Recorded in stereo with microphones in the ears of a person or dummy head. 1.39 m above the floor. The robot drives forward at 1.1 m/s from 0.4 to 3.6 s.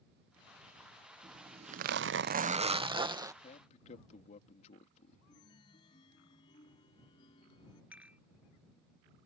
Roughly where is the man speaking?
Left.